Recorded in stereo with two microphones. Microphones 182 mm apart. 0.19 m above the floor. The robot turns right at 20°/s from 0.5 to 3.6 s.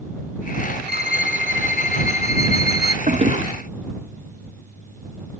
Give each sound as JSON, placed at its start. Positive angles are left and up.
{"t": 0.9, "sound": "a violin", "azimuth_deg": -140}
{"t": 3.1, "sound": "a toilet flushing", "side_deg": -35}